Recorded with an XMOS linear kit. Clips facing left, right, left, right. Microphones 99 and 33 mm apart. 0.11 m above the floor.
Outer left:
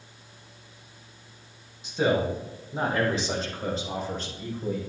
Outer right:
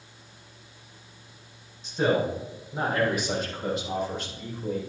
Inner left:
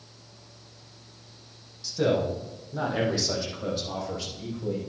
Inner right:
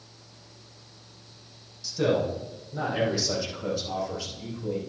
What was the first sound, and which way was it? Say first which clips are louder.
A man speaking: even, even; 15° left (ahead or behind).